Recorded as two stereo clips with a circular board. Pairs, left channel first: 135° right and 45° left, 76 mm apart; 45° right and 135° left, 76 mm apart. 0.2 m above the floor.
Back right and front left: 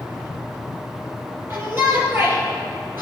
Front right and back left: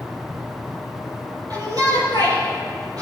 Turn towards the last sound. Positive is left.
turn(degrees=105)